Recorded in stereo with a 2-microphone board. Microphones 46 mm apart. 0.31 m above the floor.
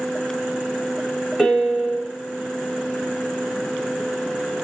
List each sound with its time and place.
1.4 s a piano: 10° right (ahead or behind), 0.8 m